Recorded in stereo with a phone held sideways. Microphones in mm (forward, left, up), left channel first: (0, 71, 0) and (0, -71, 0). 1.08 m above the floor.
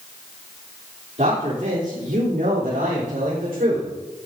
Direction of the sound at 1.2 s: 55° right (ahead or behind).